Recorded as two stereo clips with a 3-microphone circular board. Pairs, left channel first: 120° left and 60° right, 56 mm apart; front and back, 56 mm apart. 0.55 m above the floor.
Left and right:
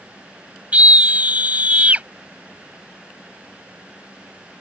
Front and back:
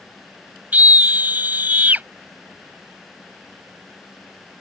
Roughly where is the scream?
Behind right.